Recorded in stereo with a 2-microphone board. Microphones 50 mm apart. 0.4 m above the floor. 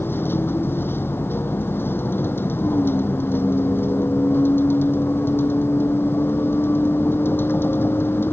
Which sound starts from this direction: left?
A vehicle, at 0.0 s.